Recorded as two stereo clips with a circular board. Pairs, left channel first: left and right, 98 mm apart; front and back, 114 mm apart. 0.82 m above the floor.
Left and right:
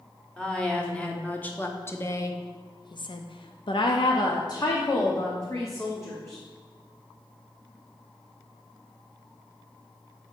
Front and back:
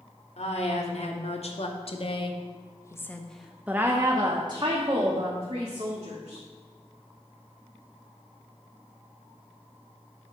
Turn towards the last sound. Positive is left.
turn(degrees=155)